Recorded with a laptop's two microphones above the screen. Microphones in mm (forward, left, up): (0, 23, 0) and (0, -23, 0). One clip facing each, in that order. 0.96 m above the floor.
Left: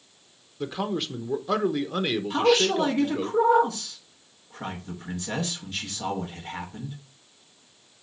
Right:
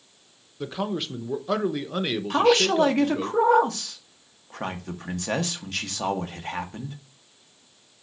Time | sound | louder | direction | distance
0.6 | a man speaking | even | centre (ahead or behind) | 0.9 m
2.3 | a man speaking | right 2 dB | 65° right (ahead or behind) | 1.6 m